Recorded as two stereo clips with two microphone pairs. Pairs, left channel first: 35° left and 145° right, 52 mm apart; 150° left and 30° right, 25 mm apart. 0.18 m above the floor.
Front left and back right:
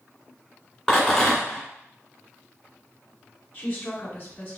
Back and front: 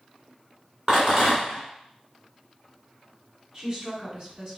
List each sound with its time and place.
0.9 s a rattle: 65° right, 1.8 m
3.5 s a woman speaking: 5° left, 1.3 m